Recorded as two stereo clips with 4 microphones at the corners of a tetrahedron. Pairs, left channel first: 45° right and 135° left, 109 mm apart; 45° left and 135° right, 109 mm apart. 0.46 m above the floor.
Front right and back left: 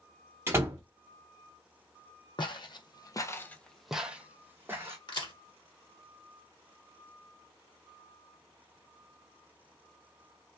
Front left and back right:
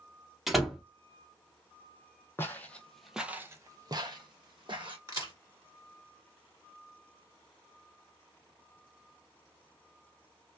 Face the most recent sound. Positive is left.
turn(degrees=-80)